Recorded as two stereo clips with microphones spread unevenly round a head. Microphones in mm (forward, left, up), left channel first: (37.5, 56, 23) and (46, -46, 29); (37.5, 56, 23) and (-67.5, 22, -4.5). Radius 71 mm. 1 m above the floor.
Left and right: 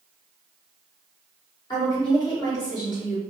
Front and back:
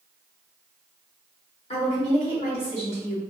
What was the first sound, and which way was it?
A woman speaking, 50° left.